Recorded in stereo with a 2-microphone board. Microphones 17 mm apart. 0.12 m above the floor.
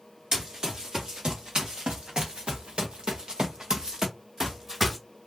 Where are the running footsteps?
50° right (ahead or behind), 1.7 m; by 5.0 s 10° right (ahead or behind), 1.0 m.